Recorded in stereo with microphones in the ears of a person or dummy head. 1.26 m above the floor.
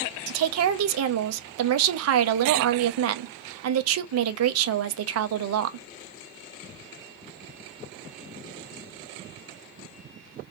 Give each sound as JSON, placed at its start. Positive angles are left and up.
{"t": 0.3, "sound": "a woman speaking", "side_deg": -90, "distance_m": 0.5}